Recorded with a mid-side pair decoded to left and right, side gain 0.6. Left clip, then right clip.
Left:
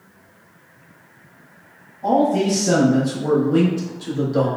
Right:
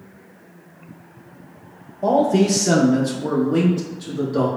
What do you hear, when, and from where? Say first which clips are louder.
2.0 s a man speaking: right 1 dB; 70° right, 0.7 m; by 4.5 s 10° left, 1.6 m